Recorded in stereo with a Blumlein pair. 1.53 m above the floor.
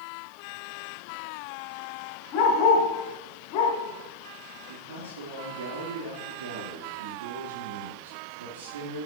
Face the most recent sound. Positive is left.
turn(degrees=-65)